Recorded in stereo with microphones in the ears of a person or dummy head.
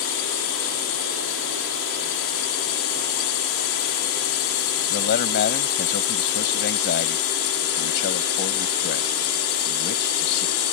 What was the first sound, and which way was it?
A drone, 60° left (ahead or behind).